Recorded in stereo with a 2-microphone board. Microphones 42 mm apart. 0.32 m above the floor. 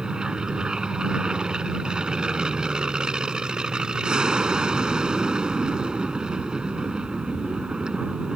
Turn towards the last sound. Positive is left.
turn(degrees=-20)  # may be behind; listen again after turning